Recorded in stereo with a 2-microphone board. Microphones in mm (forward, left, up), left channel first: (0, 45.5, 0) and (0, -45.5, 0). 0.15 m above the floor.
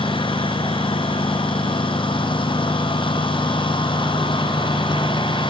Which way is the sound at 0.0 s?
75° left (ahead or behind).